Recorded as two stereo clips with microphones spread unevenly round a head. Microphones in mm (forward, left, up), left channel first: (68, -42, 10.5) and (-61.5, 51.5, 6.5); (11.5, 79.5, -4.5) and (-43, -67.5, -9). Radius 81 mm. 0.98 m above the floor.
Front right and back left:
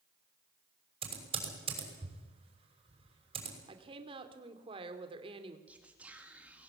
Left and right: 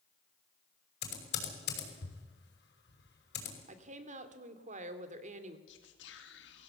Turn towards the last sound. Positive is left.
turn(degrees=65)